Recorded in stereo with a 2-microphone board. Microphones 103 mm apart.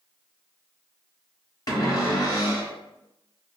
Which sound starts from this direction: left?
A cupboard door, at 1.7 s.